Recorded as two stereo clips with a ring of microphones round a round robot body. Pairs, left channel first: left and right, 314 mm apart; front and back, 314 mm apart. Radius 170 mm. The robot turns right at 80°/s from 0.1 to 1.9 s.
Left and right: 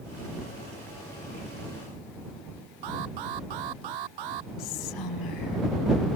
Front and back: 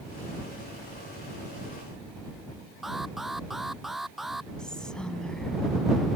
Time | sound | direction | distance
2.8 | an alarm | 90° right | ?
4.6 | whispering | 90° left | ?